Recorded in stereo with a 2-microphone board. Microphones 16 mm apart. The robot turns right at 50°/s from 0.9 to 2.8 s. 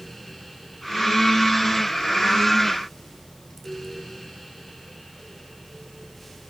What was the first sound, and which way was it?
Only background noise.